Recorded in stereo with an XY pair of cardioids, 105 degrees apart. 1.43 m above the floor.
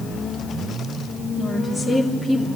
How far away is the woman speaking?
About 3.5 m.